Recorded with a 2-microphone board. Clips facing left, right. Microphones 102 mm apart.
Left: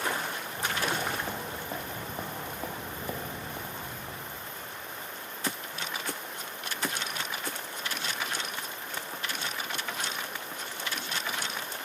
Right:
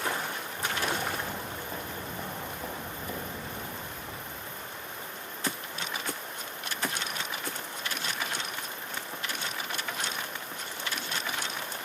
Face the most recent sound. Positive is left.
turn(degrees=0)  # may be behind; listen again after turning